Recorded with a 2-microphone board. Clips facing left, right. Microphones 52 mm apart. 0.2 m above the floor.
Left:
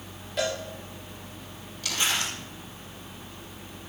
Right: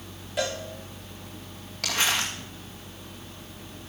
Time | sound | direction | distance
0.4 | a cowbell | 5° right (ahead or behind) | 6 m
1.8 | crumpling | 60° right (ahead or behind) | 8 m